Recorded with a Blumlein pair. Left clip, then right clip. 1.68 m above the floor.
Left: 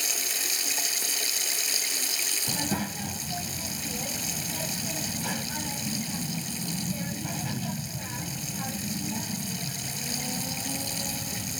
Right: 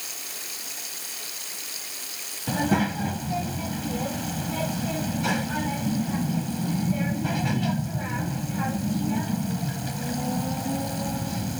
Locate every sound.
0.0 s running water: 25° left
2.5 s a child speaking: 20° right